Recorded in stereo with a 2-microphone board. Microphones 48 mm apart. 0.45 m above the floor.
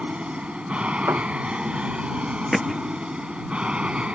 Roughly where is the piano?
Right.